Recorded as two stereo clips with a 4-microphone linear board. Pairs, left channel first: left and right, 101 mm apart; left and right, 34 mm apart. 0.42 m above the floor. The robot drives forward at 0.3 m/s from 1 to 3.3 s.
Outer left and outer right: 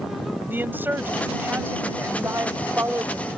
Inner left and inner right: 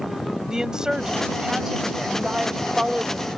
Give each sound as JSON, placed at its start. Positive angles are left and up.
{"t": 0.5, "sound": "a woman speaking", "side_deg": -20}